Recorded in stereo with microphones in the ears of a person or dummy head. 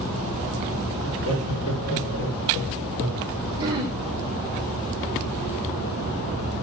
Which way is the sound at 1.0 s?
60° left (ahead or behind).